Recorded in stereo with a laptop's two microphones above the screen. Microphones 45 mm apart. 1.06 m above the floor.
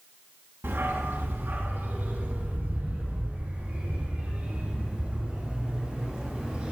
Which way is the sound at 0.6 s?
70° right (ahead or behind).